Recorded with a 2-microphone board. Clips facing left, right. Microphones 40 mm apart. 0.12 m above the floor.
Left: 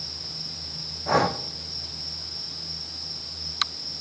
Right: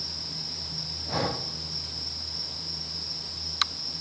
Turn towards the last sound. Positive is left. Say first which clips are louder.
# left 8 dB
turn(degrees=80)